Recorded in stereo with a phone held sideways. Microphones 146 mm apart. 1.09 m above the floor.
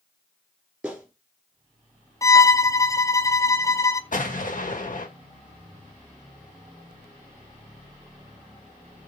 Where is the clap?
10° right (ahead or behind), 2.5 m.